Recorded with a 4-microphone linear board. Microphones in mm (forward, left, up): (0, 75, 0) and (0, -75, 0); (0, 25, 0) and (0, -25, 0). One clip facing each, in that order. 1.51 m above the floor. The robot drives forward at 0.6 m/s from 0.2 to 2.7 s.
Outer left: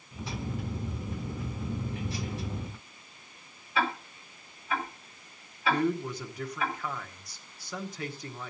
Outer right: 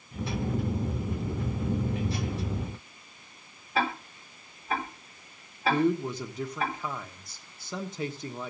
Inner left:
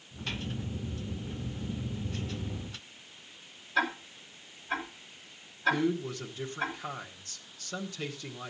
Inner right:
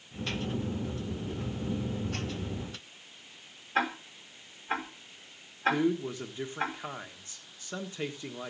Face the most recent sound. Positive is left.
turn(degrees=-25)  # may be behind; listen again after turning